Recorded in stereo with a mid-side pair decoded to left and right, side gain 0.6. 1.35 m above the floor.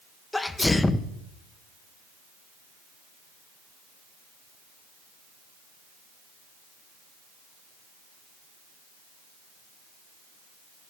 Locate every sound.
0.3 s a sneeze: 10° left, 1.1 m